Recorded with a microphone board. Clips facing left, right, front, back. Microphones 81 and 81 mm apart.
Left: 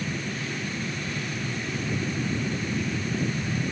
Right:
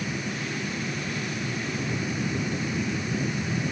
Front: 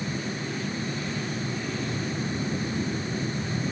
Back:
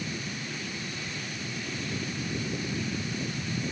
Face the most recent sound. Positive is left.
No sound to turn to.